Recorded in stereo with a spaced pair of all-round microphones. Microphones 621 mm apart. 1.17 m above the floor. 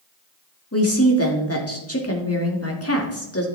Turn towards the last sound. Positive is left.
turn(degrees=25)  # may be behind; listen again after turning